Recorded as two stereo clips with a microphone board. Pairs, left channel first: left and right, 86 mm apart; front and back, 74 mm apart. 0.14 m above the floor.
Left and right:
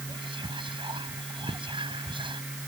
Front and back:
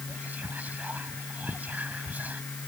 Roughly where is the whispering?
Right.